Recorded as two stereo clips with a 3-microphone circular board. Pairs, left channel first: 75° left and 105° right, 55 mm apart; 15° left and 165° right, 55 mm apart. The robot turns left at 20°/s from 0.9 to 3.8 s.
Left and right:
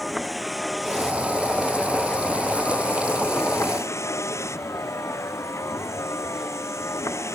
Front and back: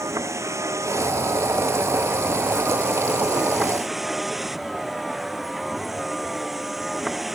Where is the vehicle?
165° left; by 7.4 s 105° left.